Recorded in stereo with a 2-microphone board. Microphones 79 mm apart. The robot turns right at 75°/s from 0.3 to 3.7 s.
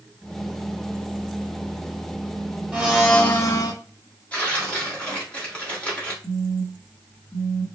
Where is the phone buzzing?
30° left (ahead or behind), 3 m.